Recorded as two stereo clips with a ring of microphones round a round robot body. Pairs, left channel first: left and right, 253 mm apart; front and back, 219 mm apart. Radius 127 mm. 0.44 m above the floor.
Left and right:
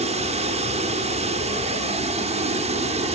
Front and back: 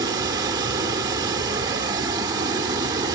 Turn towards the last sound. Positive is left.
turn(degrees=-125)